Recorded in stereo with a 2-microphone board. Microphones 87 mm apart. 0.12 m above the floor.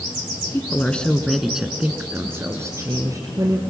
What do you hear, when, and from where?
0.5 s a woman speaking: 25° left (ahead or behind), 1.4 m; by 3.6 s 45° right (ahead or behind), 2 m